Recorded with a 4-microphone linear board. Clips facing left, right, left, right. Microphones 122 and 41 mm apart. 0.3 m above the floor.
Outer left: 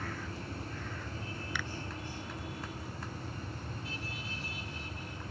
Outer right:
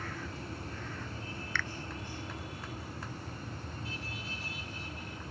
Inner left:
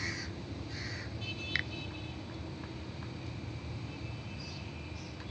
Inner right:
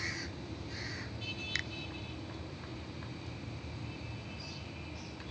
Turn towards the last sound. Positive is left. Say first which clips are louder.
# outer right 2 dB, inner left 4 dB
turn(degrees=15)  # may be behind; listen again after turning